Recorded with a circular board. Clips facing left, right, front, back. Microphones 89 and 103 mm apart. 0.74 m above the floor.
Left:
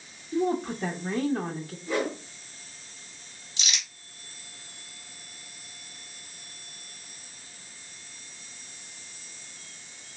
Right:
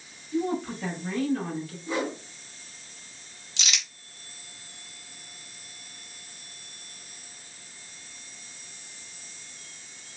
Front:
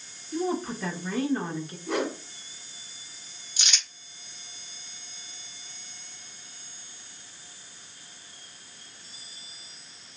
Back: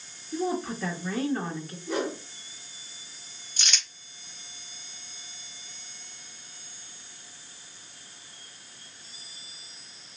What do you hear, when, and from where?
0.3 s a woman speaking: 80° left, 0.7 m
1.9 s a whoosh: 20° right, 1.3 m
3.6 s crumpling: 80° right, 1.2 m